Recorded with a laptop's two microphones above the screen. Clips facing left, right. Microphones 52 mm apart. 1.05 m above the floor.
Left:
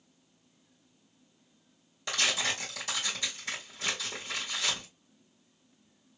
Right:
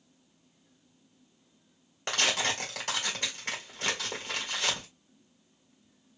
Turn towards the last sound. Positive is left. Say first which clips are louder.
# right 2 dB
turn(degrees=-50)  # may be behind; listen again after turning